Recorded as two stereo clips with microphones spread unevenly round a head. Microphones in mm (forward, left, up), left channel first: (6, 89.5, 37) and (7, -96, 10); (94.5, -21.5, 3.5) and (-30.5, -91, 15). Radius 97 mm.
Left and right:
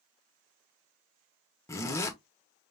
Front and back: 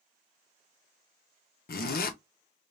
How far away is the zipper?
About 0.7 m.